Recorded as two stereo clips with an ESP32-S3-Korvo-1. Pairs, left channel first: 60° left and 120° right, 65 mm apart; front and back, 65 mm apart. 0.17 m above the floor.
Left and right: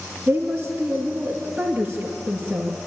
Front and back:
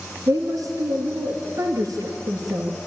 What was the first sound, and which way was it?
A woman speaking, 165° left.